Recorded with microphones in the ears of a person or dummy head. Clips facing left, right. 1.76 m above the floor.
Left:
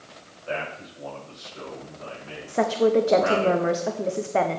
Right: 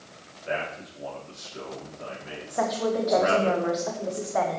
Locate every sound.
0.5 s a man speaking: 35° right (ahead or behind), 4.5 m
2.5 s a woman speaking: 40° left (ahead or behind), 1.0 m